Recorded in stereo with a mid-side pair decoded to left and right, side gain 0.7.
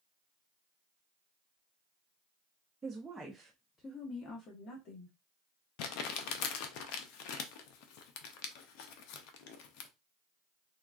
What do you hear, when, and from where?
2.8 s a woman speaking: 20° right, 0.8 m; by 5.2 s 60° left, 1.3 m
5.8 s crumpling: 65° left, 0.6 m